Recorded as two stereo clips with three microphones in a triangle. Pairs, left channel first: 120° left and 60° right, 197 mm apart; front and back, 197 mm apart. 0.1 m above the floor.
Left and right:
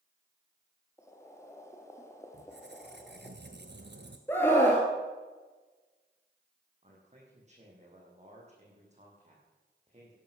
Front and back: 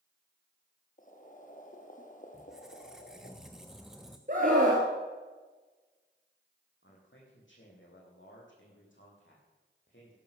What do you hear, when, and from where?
1.0 s boiling: 45° left, 2 m
2.3 s a squeak: 90° right, 1.4 m
4.3 s a scream: 165° right, 1.9 m
6.8 s a man speaking: 5° right, 6.5 m